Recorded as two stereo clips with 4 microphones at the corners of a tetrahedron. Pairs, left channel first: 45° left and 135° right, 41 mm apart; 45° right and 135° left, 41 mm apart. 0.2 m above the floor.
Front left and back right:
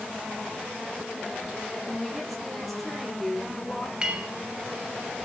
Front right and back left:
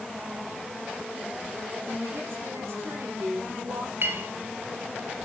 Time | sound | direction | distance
1.9 | a woman speaking | 140° left | 7 m
4.0 | a clink | 160° left | 2.5 m